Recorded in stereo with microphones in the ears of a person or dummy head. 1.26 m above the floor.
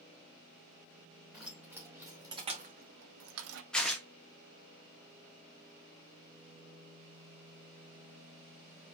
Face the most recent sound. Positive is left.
turn(degrees=5)  # may be behind; listen again after turning